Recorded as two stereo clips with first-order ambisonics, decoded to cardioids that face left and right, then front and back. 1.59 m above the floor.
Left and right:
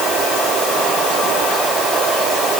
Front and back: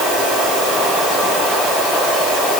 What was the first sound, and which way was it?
Only background noise.